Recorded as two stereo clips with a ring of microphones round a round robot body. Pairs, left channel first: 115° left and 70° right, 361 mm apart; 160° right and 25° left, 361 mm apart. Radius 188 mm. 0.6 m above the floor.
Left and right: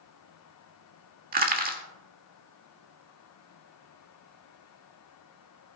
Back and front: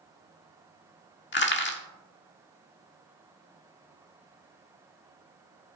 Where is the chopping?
No chopping in this recording.